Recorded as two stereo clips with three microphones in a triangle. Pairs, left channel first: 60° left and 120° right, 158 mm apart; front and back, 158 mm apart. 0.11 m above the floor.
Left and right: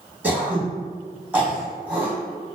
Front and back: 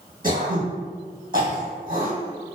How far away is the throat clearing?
About 1.7 m.